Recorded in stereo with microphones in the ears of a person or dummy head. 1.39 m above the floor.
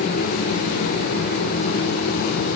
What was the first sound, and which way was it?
Only background noise.